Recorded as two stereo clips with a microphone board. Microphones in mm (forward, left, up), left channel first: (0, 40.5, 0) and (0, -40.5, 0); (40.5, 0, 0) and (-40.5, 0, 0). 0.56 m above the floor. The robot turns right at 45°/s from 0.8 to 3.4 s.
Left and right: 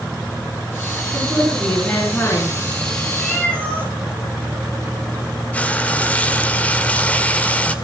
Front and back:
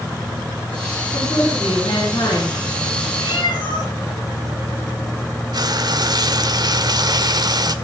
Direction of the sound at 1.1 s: 30° right.